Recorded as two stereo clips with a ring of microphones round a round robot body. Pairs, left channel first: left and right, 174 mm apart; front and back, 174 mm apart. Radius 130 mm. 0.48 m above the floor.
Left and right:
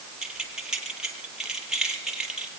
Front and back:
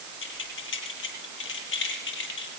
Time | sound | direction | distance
0.2 | keys jangling | 5° right | 8.5 m